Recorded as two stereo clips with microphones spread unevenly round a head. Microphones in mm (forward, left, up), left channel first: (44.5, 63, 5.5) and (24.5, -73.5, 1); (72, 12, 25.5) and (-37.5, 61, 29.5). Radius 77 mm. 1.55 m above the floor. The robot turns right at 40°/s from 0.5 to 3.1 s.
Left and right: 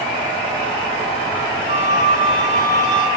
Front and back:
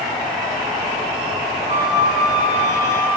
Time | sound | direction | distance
1.7 | a flute | 160° right | 6.5 m